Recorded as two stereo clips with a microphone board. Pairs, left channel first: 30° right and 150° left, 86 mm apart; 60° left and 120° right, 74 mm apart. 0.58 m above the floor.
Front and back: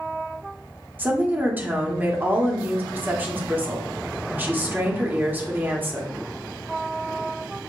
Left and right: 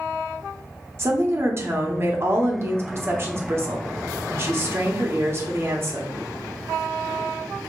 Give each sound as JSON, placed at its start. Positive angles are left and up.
{"t": 1.0, "sound": "a woman speaking", "azimuth_deg": -155, "distance_m": 1.0}